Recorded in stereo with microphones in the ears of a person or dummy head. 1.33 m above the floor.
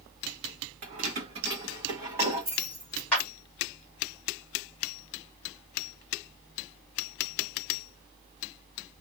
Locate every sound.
0.8 s keys jangling: 45° right (ahead or behind), 1.2 m; by 3.3 s 5° right (ahead or behind), 2 m
3.1 s a clap: 5° left (ahead or behind), 2 m